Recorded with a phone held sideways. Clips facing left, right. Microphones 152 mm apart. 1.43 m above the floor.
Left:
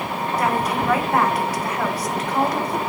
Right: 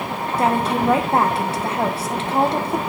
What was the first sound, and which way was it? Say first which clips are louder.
A woman speaking: right 4 dB; 25° right (ahead or behind).